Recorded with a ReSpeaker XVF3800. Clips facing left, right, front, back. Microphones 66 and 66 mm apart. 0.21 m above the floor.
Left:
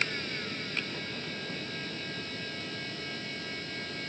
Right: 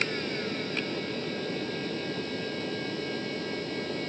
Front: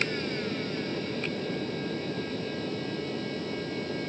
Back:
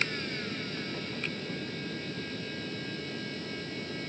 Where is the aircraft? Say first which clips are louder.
Right 4 dB, front 4 dB; 35° right; by 4.1 s 45° right.